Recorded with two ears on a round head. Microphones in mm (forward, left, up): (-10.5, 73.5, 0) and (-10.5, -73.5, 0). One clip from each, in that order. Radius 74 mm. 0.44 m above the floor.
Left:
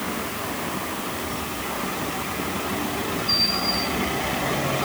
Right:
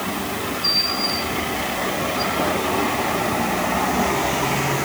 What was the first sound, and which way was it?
Only background noise.